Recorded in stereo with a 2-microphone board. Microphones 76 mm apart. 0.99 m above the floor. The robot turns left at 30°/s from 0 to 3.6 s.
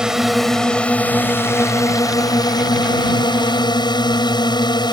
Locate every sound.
0.0 s a drone: 170° right; by 4.9 s 85° left